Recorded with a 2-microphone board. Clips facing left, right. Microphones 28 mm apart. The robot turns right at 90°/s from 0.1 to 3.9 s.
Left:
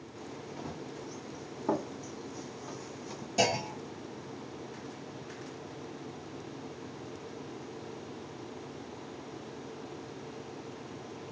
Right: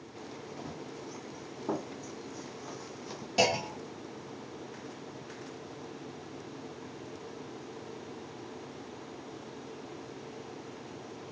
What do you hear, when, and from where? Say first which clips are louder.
0.6 s running footsteps: left 2 dB; 35° left (ahead or behind), 2.5 m; by 3.3 s 45° right (ahead or behind), 1.3 m
3.4 s a clunk: right 1 dB; 60° right, 1.6 m; by 4.2 s 15° right, 1.6 m